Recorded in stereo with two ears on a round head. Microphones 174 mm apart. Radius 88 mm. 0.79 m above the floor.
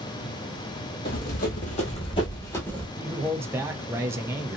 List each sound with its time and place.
1.1 s running footsteps: 55° left (ahead or behind), 1.4 m; by 2.9 s 5° left (ahead or behind), 1.2 m
3.0 s a man speaking: 15° right (ahead or behind), 0.5 m